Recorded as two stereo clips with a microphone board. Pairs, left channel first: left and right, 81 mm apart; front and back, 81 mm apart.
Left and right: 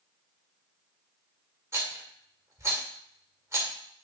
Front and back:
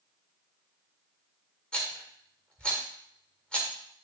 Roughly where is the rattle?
Right.